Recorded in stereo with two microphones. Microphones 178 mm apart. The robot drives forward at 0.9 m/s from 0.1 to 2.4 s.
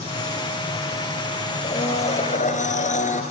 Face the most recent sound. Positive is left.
turn(degrees=45)  # may be behind; listen again after turning